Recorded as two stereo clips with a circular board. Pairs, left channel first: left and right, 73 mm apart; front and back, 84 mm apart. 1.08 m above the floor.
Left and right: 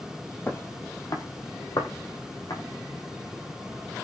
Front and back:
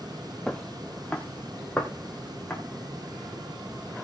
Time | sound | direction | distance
0.5 | footsteps | 75° left | 1.2 m